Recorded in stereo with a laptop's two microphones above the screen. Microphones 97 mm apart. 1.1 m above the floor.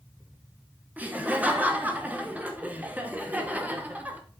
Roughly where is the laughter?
Centre.